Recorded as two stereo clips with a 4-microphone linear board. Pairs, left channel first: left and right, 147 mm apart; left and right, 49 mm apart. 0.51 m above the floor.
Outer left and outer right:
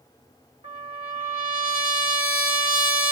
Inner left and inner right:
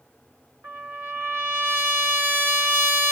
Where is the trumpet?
40° right (ahead or behind), 3 m.